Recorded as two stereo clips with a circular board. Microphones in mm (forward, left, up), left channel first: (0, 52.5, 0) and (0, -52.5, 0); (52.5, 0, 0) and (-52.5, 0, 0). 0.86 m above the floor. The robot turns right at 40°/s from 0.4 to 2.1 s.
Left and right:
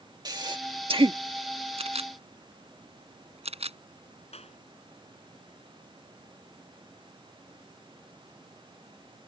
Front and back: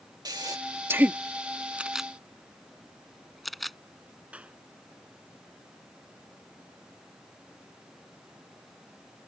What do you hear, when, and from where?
0.2 s breathing: 135° right; by 1.2 s 100° right
1.8 s a camera shutter: 105° right; by 3.8 s 90° right
4.3 s a clap: 100° left